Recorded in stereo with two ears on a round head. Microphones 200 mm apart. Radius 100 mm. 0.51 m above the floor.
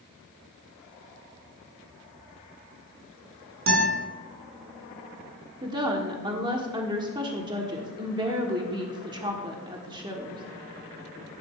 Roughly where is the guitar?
Right.